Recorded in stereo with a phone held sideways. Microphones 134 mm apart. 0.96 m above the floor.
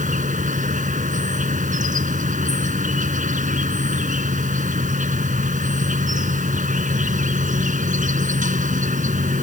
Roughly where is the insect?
Right.